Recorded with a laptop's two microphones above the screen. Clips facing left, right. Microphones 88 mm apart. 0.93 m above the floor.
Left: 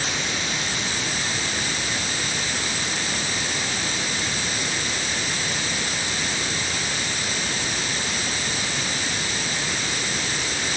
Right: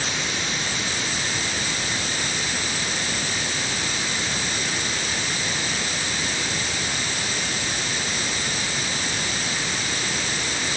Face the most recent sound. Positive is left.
No sound to turn to.